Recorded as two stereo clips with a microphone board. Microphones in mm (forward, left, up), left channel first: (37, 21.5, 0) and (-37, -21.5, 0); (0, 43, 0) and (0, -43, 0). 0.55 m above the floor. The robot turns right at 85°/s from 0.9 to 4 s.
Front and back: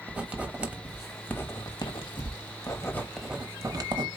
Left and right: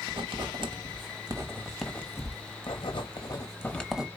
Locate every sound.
0.1 s writing: 75° right, 1.0 m; by 4.1 s 175° right, 1.0 m